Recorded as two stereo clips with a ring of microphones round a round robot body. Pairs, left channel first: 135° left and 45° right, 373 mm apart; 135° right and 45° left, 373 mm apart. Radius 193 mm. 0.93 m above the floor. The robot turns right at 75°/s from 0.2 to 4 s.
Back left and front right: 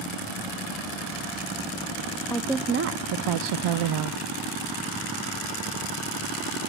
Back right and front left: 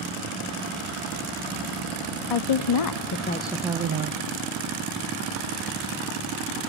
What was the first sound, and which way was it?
A woman speaking, 140° right.